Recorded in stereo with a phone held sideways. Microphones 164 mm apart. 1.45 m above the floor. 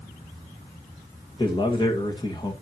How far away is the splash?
No splash in this recording.